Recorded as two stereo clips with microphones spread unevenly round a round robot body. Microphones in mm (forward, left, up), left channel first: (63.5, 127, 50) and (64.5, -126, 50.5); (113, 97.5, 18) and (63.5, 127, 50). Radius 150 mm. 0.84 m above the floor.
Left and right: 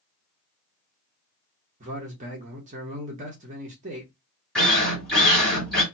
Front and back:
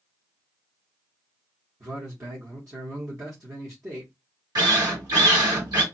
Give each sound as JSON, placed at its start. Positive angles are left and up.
{"t": 1.8, "sound": "a man speaking", "azimuth_deg": -145, "distance_m": 0.8}
{"t": 4.5, "sound": "a drill", "azimuth_deg": 175, "distance_m": 1.5}